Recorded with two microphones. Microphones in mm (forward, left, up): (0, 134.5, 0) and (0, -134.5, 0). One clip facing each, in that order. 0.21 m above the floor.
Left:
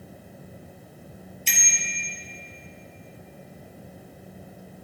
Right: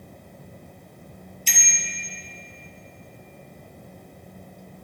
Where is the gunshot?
I don't hear a gunshot.